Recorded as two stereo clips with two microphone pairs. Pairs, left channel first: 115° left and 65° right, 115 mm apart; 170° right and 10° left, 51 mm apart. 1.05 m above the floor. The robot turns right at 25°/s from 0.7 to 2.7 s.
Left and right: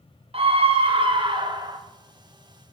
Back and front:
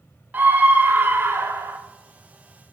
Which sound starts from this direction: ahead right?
A scream, at 0.3 s.